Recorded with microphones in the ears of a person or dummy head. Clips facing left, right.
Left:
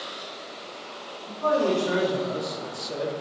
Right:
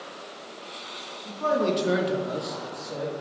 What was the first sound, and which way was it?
A man speaking, 65° right (ahead or behind).